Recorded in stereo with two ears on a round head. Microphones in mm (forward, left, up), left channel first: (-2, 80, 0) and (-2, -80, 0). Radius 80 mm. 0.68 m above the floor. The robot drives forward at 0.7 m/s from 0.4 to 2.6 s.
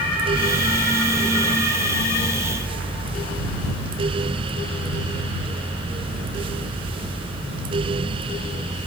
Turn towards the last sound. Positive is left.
No sound to turn to.